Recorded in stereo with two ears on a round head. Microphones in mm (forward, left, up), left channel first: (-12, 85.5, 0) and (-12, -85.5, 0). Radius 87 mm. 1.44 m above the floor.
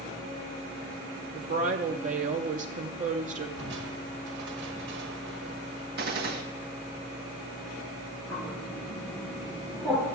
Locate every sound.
1.3 s a woman speaking: 40° right (ahead or behind), 0.8 m
3.6 s crushing: 70° right (ahead or behind), 1.6 m
6.0 s a gunshot: 50° right (ahead or behind), 1.4 m
8.3 s a bird: 5° left (ahead or behind), 3.5 m